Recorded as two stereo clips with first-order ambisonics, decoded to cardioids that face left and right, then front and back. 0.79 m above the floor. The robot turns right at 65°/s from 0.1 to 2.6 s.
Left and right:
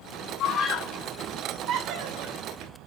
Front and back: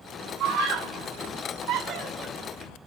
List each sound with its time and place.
0.4 s a scream: 135° left, 2.5 m; by 2.7 s 80° right, 2.5 m